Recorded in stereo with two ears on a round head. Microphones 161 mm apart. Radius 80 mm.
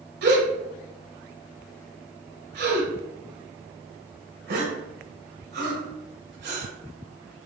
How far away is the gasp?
About 0.9 m.